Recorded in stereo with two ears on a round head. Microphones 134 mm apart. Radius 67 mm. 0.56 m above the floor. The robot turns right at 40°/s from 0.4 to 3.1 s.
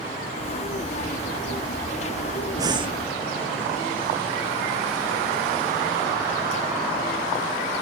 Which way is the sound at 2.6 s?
25° right (ahead or behind).